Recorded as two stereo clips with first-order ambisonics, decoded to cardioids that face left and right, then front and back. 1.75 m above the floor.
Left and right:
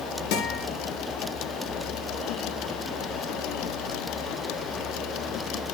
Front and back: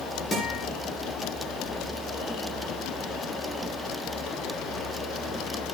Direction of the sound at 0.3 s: 70° left.